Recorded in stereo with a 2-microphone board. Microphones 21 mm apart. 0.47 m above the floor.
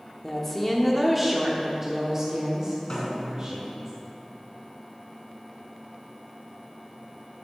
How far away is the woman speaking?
About 1.1 m.